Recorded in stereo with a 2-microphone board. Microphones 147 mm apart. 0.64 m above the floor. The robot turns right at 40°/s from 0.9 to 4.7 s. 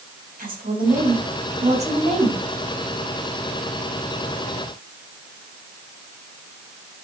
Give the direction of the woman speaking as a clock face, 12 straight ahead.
3 o'clock.